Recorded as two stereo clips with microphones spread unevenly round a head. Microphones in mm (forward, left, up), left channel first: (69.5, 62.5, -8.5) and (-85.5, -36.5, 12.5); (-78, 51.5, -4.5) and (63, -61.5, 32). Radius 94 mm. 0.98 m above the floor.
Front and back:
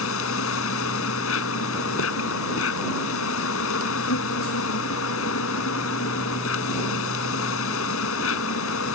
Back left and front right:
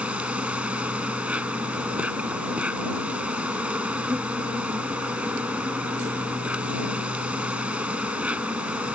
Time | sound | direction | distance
0.0 | an insect | 45° left | ?